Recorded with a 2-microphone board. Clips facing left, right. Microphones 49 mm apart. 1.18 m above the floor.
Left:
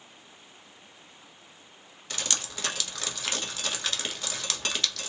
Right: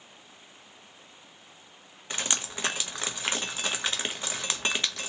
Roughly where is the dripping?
Right.